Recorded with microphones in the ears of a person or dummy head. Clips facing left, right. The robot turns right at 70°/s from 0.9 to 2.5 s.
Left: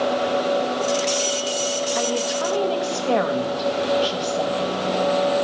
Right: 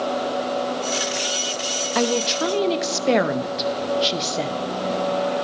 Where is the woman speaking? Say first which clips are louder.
Right 6 dB; 65° right, 0.5 m; by 4.6 s 25° right, 0.5 m.